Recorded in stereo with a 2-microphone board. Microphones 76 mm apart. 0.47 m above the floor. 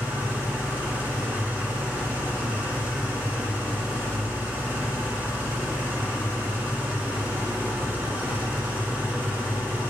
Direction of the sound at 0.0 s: 20° right (ahead or behind).